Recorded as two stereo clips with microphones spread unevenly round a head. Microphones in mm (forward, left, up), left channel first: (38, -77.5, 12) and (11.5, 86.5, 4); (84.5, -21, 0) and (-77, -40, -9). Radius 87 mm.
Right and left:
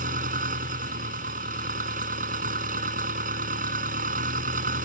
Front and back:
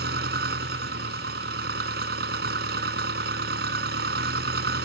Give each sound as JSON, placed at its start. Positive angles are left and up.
{"t": 0.0, "sound": "an engine running", "azimuth_deg": 150}